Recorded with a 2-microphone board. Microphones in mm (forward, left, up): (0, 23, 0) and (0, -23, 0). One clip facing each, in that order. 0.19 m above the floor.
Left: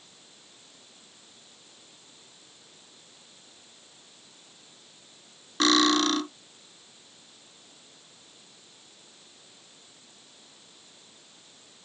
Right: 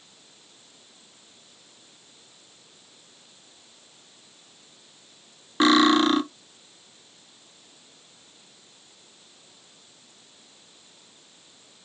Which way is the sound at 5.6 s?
20° right (ahead or behind).